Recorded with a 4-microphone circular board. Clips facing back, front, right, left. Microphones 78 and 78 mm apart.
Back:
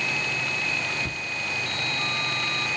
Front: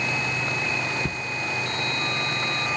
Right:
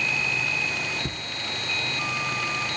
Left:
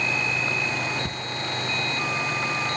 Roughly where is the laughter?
Ahead.